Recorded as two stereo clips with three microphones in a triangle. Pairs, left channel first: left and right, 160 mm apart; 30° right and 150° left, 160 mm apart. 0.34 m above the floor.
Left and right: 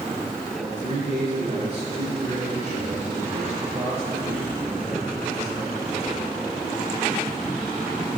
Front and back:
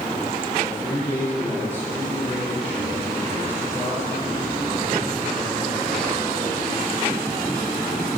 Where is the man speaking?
135° right, 5.5 m.